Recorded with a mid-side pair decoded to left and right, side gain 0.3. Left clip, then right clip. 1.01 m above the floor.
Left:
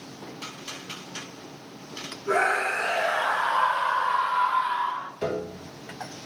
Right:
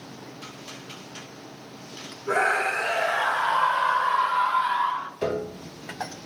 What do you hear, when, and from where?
2.3 s a scream: 5° left, 4.5 m; by 5.1 s 40° right, 1.5 m
5.2 s a piano: 20° right, 1.6 m